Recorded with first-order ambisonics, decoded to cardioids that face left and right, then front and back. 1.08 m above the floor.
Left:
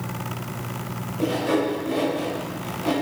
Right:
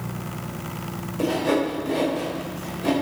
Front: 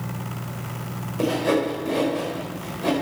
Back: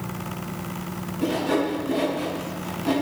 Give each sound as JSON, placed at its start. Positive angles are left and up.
{"t": 1.2, "sound": "sawing", "azimuth_deg": -15, "distance_m": 4.5}